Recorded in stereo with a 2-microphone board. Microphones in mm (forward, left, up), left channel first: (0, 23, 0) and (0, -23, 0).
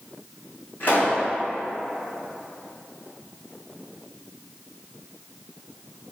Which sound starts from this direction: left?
A pop, at 0.8 s.